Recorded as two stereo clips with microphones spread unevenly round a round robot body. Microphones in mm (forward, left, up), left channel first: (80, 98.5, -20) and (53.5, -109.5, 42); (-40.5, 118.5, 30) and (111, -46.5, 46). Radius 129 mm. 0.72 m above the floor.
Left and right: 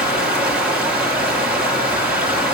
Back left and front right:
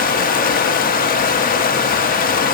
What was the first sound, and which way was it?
Running water, 165° left.